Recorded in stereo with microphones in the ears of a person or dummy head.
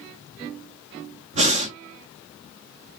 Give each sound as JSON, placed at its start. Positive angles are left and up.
{"t": 1.3, "sound": "breathing", "side_deg": -35, "distance_m": 0.8}